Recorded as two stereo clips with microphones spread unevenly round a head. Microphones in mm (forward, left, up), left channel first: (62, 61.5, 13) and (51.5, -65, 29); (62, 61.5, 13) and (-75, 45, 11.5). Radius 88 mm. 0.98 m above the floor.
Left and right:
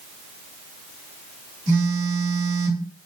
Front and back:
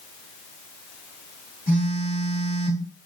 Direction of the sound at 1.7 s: 75° right.